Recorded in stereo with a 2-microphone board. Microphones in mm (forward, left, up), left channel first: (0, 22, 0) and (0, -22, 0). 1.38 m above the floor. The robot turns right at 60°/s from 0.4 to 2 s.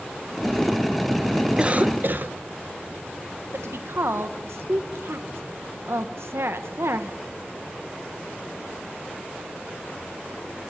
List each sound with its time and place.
1.6 s a cough: 20° right (ahead or behind), 1.5 m; by 2.4 s 45° right (ahead or behind), 1.5 m
3.5 s a woman speaking: 75° right (ahead or behind), 1.3 m